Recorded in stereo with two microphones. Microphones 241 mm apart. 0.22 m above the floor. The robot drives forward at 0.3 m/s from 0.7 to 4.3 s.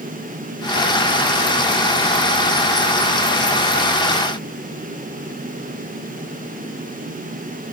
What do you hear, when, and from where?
Only background noise.